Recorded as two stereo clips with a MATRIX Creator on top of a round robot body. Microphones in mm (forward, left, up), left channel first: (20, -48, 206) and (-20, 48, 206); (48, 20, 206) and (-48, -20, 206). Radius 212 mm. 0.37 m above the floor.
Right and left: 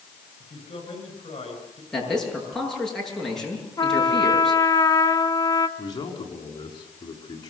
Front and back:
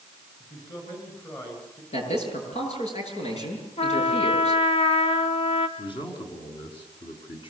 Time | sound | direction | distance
0.4 | a man speaking | 30° right | 10 m
1.9 | a man speaking | 20° left | 8.5 m
3.8 | a trumpet | 10° right | 1.4 m
5.8 | a man speaking | 15° right | 6 m